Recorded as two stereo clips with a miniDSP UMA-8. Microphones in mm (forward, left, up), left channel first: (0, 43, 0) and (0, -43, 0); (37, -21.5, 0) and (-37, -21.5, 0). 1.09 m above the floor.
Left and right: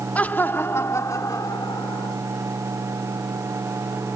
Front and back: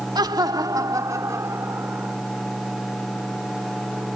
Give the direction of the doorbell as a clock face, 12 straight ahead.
No doorbell in this recording.